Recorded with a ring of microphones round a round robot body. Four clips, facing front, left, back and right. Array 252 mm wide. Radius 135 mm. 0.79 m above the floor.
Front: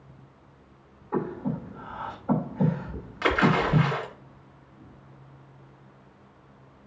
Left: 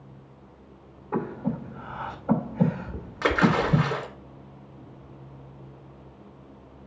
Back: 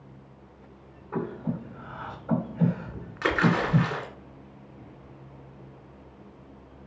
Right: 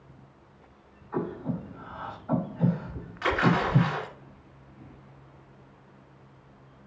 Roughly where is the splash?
Left.